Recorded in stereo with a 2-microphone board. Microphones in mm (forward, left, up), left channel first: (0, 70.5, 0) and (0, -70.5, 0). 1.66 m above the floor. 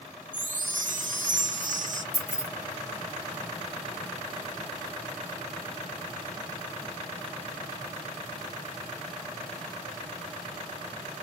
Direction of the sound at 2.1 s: 25° left (ahead or behind).